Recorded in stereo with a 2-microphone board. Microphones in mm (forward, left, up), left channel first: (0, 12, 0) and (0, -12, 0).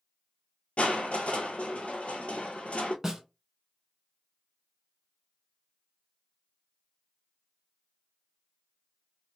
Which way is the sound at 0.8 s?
75° left (ahead or behind).